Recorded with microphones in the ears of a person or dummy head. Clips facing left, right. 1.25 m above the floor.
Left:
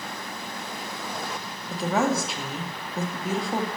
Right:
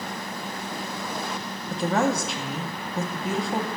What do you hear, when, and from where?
1.7 s a woman speaking: 5° left (ahead or behind), 0.6 m